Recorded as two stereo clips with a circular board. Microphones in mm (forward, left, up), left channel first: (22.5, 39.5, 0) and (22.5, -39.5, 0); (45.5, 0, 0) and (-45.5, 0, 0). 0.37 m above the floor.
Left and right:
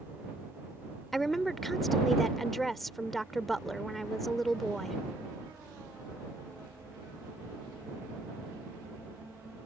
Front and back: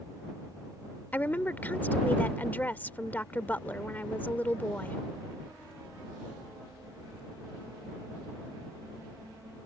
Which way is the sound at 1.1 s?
5° left.